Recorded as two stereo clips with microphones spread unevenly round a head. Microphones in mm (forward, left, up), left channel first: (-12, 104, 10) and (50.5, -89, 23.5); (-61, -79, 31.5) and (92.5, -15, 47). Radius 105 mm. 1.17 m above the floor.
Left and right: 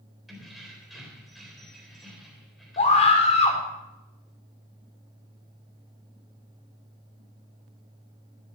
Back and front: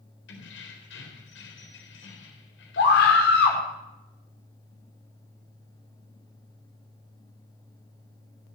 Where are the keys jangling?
160° right, 3.5 m.